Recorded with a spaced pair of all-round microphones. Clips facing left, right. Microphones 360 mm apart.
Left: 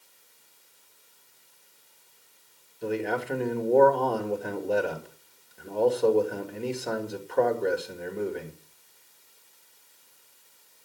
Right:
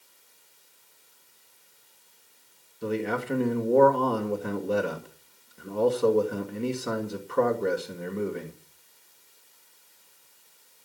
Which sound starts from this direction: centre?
A man speaking, at 2.8 s.